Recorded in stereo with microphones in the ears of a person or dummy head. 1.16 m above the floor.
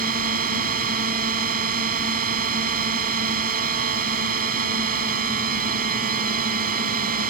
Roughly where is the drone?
Right.